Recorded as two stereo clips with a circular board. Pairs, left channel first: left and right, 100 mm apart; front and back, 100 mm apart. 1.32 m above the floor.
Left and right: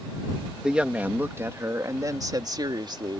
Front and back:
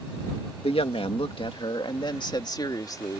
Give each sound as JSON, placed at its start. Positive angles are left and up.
{"t": 0.6, "sound": "a woman speaking", "azimuth_deg": -10}